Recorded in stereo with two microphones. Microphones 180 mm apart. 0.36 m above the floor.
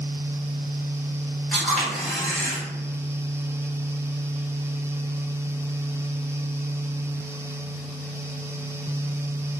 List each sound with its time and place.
1.5 s a camera shutter: 5° left (ahead or behind), 1.2 m